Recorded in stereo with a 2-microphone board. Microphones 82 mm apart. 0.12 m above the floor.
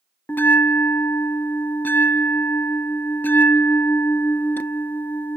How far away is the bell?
About 0.7 m.